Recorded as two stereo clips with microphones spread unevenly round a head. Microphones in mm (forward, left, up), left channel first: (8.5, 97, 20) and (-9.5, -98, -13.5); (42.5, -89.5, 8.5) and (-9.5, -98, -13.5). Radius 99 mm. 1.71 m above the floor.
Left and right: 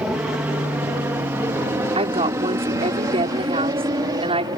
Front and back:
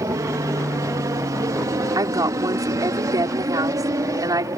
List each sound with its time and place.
0.0 s an aircraft: straight behind; by 4.6 s 165° right
1.9 s a woman speaking: 160° right